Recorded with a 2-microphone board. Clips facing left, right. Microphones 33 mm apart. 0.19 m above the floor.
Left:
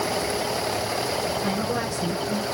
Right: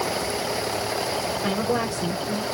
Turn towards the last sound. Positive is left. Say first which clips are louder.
# right 2 dB
turn(degrees=-20)  # may be behind; listen again after turning